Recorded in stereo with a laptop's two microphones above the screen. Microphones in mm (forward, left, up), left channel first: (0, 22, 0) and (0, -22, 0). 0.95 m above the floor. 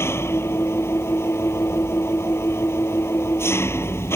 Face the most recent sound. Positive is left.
turn(degrees=75)  # may be behind; listen again after turning